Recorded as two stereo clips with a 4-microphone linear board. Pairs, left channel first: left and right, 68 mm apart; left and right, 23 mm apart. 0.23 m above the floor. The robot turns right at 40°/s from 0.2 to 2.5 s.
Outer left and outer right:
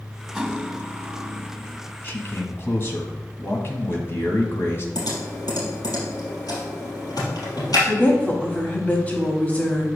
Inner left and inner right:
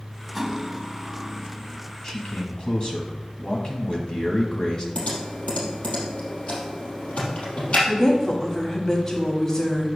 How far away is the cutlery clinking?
About 0.8 m.